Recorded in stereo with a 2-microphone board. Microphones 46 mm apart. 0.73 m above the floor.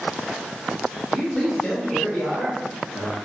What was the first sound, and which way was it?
A man speaking, 25° left (ahead or behind).